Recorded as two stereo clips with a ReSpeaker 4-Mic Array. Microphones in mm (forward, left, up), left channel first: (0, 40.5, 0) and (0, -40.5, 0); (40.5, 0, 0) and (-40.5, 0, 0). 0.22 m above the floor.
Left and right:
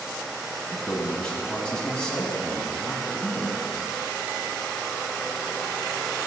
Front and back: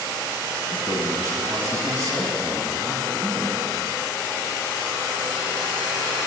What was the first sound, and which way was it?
A man speaking, 165° left.